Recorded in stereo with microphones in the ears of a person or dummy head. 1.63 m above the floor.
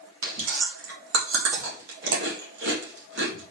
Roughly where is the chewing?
Right.